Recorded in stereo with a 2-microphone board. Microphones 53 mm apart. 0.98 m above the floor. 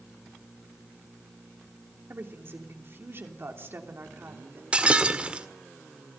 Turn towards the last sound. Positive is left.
turn(degrees=-20)  # may be behind; listen again after turning